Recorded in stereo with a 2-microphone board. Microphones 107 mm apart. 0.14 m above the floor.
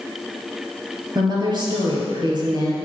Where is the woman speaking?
45° right (ahead or behind), 2 m.